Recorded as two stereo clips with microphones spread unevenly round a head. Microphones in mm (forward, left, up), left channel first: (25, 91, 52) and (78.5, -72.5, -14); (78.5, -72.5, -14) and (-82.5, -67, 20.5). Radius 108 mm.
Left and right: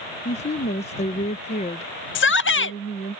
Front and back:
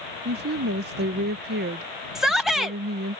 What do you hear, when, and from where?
0.2 s a woman speaking: 175° left
2.1 s a shout: 85° left